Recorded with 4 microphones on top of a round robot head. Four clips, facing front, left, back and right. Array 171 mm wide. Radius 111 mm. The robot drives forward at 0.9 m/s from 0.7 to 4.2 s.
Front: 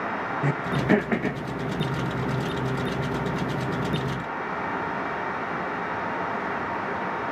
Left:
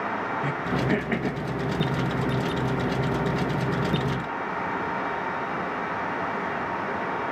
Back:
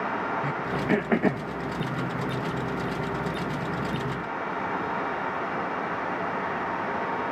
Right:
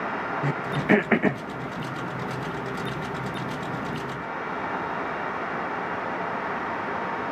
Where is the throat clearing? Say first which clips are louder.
Right 3 dB, front 3 dB; 35° right, 0.6 m; by 1.4 s 150° right, 0.6 m.